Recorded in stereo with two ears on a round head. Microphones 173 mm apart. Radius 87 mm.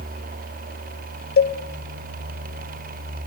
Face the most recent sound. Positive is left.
turn(degrees=55)  # may be behind; listen again after turning